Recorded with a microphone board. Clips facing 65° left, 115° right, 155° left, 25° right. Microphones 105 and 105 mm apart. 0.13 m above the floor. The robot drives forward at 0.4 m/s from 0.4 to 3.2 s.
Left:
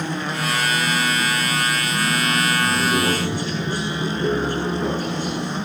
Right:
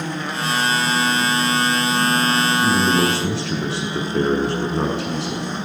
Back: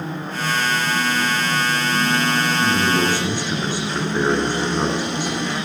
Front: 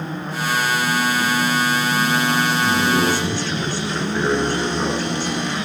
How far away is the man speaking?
About 6.5 m.